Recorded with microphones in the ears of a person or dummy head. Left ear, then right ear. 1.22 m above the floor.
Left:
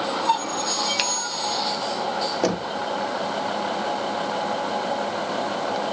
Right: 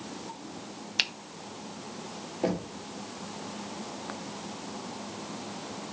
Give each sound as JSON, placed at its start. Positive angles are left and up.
{"t": 1.0, "sound": "a finger snap", "side_deg": 0, "distance_m": 0.6}
{"t": 2.4, "sound": "knocking", "side_deg": 65, "distance_m": 1.1}